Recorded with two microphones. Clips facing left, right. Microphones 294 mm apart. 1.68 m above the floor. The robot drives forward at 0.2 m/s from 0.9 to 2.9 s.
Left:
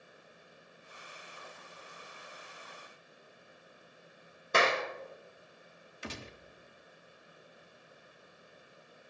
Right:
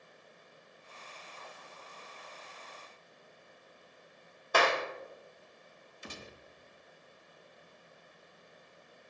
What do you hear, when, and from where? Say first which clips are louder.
4.5 s a clap: even; 25° left (ahead or behind), 1.3 m
6.0 s a gunshot: left 4 dB; 65° left (ahead or behind), 0.9 m